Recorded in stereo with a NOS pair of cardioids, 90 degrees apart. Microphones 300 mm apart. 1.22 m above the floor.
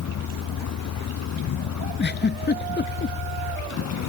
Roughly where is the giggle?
Ahead left.